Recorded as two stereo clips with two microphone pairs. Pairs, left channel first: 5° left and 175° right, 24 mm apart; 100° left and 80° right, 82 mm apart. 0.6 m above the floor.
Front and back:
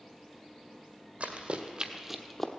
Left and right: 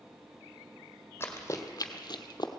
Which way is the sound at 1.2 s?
160° left.